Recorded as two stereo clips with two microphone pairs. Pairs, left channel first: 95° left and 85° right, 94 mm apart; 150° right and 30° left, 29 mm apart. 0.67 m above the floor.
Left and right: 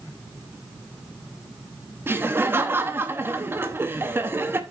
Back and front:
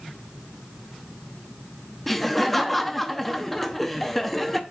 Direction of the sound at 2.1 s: 75° right.